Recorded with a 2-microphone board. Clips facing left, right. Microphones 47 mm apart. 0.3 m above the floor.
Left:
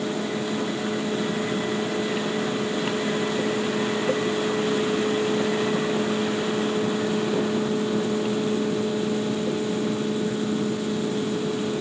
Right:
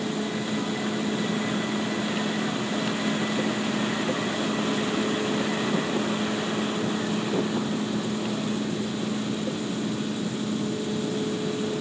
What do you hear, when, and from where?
Only background noise.